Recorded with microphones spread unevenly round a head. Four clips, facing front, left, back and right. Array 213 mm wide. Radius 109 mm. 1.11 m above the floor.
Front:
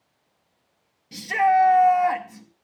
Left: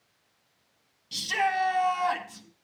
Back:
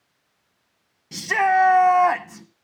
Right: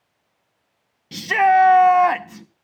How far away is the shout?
About 1.0 m.